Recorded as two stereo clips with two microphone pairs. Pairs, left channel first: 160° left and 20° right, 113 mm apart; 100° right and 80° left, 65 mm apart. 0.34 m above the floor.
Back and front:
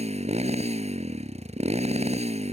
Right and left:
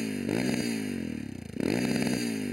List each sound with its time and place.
0.0 s a motorcycle: 5° right